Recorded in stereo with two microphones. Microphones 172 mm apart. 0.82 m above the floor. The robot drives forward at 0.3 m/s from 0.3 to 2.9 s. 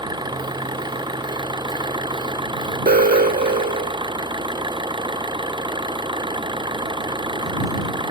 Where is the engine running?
25° right (ahead or behind).